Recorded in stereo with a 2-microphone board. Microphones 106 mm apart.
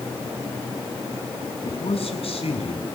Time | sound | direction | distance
1.6 | a man speaking | 65° left (ahead or behind) | 6 m